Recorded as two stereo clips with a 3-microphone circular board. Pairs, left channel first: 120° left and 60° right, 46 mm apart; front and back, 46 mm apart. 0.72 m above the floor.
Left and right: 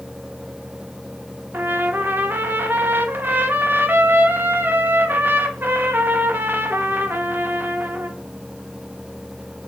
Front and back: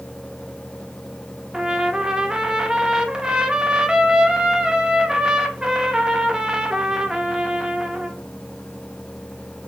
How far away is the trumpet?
About 0.6 m.